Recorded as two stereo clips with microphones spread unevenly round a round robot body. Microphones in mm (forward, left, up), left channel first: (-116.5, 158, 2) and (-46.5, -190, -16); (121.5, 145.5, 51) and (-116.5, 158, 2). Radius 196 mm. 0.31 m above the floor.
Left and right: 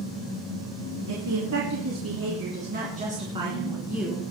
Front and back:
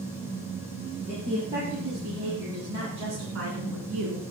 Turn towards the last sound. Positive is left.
turn(degrees=-170)